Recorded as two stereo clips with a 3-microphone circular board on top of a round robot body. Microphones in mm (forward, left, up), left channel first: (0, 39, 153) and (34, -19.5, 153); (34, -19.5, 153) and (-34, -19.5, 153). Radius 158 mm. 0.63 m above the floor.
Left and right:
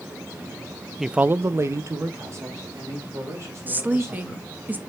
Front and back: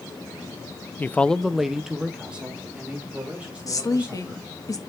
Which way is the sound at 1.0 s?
25° left.